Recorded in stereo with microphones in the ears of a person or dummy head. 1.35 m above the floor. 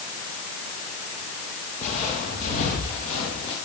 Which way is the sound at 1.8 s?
45° left (ahead or behind).